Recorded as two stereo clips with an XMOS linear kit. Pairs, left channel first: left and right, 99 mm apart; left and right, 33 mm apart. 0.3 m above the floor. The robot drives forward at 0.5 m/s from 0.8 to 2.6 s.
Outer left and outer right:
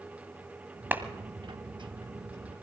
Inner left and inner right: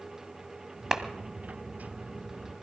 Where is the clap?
20° right (ahead or behind), 1.4 m.